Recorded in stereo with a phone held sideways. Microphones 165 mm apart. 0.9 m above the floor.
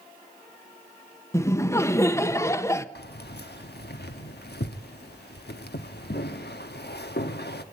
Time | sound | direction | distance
1.3 | laughter | 15° left (ahead or behind) | 0.9 m
3.0 | keys jangling | 85° left | 1.1 m